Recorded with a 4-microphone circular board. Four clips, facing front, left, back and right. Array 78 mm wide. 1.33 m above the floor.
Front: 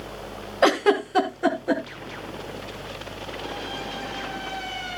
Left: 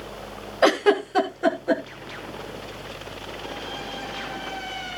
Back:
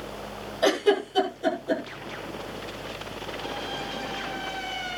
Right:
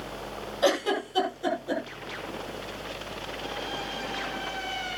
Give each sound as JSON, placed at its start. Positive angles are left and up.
{"t": 0.6, "sound": "a giggle", "azimuth_deg": 40, "distance_m": 3.0}